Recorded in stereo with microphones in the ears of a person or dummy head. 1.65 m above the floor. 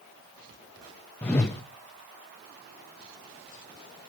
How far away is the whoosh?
About 0.9 m.